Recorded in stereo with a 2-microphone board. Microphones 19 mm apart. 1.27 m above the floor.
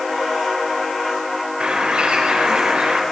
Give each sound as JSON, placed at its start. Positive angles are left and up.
{"t": 1.6, "sound": "a bird", "side_deg": -65, "distance_m": 4.0}